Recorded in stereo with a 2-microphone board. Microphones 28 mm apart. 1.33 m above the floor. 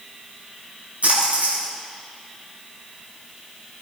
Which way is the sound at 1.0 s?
65° right (ahead or behind).